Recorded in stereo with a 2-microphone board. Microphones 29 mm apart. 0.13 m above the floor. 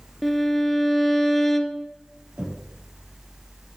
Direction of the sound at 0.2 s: 10° left (ahead or behind).